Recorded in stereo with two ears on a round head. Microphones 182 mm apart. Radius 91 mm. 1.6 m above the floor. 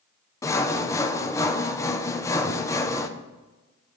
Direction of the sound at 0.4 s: 15° left (ahead or behind).